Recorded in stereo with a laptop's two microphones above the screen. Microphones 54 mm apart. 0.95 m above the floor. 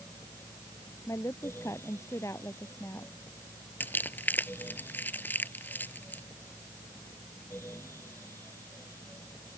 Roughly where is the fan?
Left.